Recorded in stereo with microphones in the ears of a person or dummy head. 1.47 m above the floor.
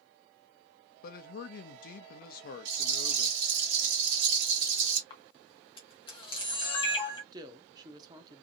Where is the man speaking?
45° left (ahead or behind), 0.6 m.